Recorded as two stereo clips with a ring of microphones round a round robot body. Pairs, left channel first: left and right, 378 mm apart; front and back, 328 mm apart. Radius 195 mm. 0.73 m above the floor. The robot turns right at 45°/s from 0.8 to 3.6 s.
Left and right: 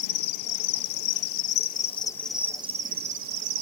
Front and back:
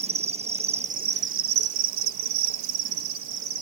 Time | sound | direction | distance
0.0 | an insect | 110° left | 0.7 m